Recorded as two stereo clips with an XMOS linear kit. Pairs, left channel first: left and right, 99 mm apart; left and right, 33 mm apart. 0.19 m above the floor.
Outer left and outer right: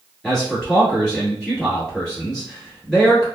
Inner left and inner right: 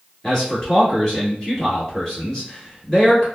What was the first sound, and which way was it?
A man speaking, 5° left (ahead or behind).